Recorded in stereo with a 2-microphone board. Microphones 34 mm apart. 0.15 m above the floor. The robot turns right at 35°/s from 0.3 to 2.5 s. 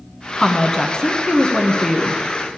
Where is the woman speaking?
15° left (ahead or behind), 1.0 m.